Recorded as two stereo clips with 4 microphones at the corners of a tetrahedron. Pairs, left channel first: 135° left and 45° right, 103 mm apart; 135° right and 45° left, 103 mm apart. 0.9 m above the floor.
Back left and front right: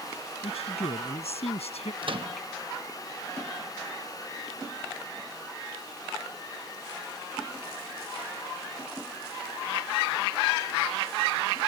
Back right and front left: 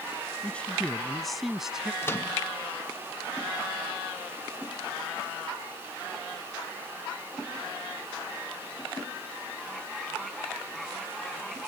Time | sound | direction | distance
0.4 | a man speaking | 150° left | ?
2.0 | a microwave | 70° right | ?